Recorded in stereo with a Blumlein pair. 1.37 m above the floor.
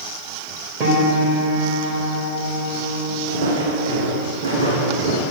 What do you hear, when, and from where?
0.8 s a piano: 35° right, 3.5 m
3.3 s footsteps: 50° right, 4.5 m